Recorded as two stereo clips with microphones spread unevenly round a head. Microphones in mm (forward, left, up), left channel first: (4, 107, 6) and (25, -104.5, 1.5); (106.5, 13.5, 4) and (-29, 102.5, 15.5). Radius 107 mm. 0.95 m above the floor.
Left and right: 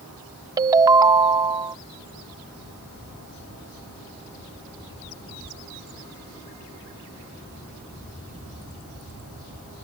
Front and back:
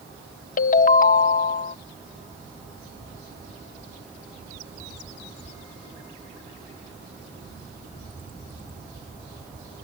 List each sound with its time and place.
0.6 s a ringtone: 15° right